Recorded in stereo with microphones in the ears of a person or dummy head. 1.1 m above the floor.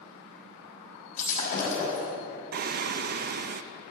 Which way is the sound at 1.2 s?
40° left (ahead or behind).